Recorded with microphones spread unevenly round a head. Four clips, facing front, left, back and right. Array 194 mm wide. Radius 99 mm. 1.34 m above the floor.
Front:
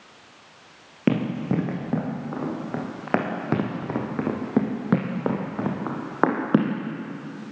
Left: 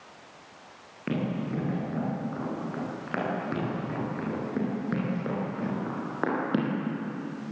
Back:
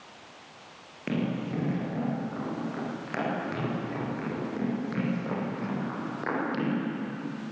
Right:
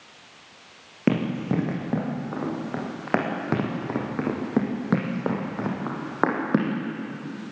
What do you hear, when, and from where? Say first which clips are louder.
1.1 s running footsteps: right 6 dB, front 7 dB; 40° right, 5.5 m; by 6.8 s 15° right, 3 m